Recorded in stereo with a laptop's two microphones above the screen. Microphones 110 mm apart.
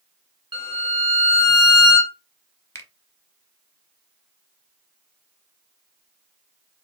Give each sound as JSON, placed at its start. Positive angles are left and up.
{"t": 0.5, "sound": "a violin", "side_deg": -45, "distance_m": 0.9}
{"t": 2.8, "sound": "a finger snap", "side_deg": 25, "distance_m": 0.9}